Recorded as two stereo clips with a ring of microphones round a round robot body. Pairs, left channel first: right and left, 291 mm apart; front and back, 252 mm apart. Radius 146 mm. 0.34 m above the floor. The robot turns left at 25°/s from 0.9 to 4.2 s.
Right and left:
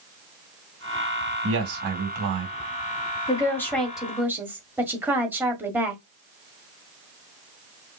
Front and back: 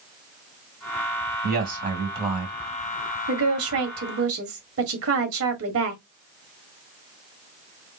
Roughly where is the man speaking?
Behind left.